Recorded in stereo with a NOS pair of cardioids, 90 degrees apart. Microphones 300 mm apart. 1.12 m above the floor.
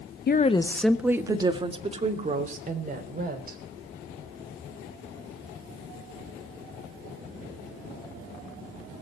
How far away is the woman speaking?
About 0.9 m.